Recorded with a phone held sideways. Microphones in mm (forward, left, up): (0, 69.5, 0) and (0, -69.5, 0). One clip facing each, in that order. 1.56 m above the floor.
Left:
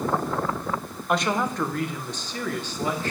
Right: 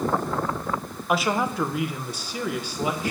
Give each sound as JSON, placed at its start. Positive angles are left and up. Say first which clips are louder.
{"t": 1.1, "sound": "a woman speaking", "louder": "right 1 dB", "side_deg": -5, "distance_m": 1.0}